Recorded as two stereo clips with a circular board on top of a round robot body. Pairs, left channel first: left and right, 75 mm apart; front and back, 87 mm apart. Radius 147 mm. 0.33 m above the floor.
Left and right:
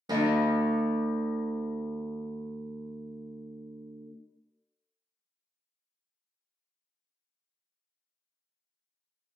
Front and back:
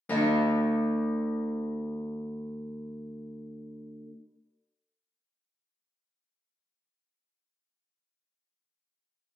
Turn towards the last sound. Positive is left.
turn(degrees=-70)